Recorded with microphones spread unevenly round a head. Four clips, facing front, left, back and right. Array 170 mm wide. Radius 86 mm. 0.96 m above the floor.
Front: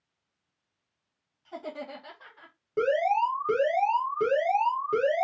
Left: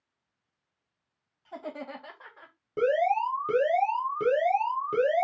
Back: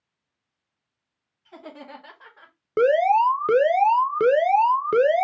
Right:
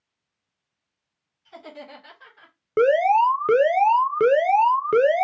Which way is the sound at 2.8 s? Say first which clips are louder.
Right 8 dB, back 7 dB; 130° right.